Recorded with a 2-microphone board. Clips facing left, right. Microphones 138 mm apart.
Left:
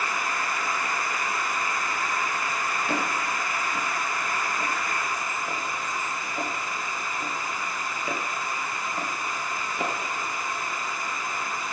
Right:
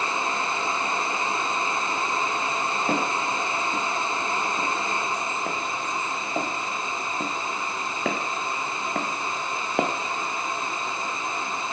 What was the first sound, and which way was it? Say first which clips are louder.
Footsteps: right 4 dB; 40° right (ahead or behind).